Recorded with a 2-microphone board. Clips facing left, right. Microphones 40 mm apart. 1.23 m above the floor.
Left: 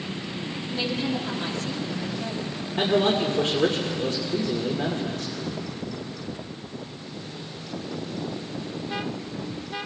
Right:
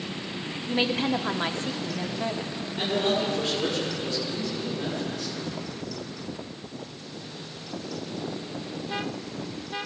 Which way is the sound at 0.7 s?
45° right (ahead or behind).